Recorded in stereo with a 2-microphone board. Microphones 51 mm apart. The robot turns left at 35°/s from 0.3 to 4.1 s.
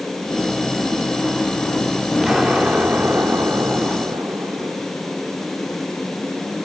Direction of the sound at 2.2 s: 10° right.